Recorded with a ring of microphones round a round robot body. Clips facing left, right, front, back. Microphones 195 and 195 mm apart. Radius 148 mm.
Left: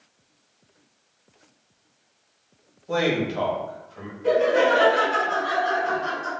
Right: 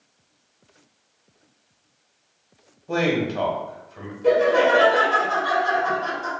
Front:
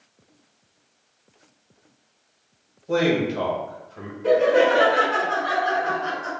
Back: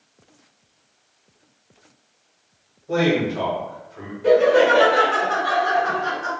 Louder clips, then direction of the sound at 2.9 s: Right 1 dB, back 1 dB; 15° right.